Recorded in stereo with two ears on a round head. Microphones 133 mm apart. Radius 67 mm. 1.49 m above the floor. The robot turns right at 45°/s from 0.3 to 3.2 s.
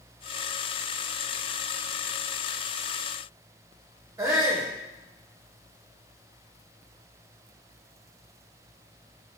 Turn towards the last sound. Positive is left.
turn(degrees=-20)  # may be behind; listen again after turning